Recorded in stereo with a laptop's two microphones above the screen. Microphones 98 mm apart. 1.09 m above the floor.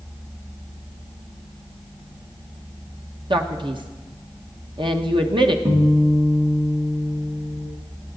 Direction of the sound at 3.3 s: 55° right (ahead or behind).